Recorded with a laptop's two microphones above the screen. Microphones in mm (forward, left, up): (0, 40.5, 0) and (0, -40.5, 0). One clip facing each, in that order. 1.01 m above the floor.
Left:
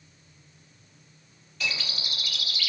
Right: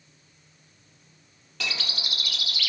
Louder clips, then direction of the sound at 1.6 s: Even; 70° right (ahead or behind).